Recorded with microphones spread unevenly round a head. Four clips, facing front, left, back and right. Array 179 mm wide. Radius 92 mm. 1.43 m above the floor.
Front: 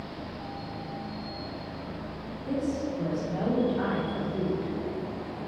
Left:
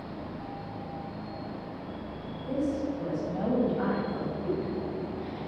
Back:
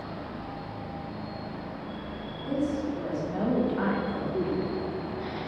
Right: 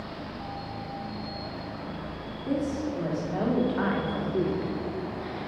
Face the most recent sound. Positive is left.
turn(degrees=-125)